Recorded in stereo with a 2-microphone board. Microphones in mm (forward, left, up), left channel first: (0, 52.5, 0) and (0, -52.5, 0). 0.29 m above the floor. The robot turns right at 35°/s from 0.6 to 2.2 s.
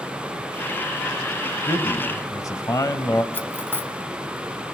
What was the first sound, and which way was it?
A man speaking, 35° left (ahead or behind).